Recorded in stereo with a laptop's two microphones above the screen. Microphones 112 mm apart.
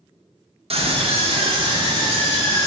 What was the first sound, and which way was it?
A scream, 60° right (ahead or behind).